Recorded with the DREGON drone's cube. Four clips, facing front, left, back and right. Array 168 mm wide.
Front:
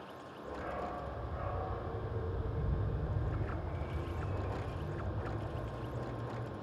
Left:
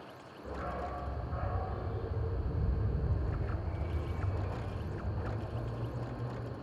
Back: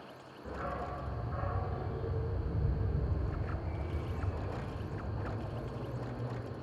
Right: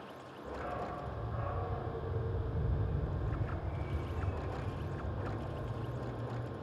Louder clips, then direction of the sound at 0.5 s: Left 1 dB, back 1 dB; 150° left.